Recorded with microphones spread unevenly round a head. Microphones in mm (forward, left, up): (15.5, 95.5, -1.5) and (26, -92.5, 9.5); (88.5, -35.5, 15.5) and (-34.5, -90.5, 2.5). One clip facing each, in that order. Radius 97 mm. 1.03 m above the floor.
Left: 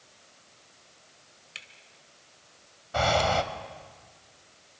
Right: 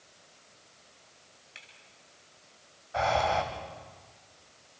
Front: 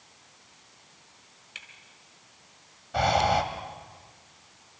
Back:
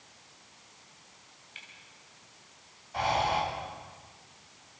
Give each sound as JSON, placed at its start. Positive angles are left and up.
{"t": 1.6, "sound": "a camera shutter", "azimuth_deg": 50, "distance_m": 2.0}
{"t": 2.9, "sound": "breathing", "azimuth_deg": 55, "distance_m": 1.5}